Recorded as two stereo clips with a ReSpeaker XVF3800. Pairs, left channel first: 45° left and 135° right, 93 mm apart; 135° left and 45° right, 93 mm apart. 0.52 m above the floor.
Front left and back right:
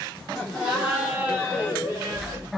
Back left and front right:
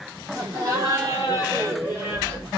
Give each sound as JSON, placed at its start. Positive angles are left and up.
{"t": 0.3, "sound": "laughter", "azimuth_deg": -45, "distance_m": 1.5}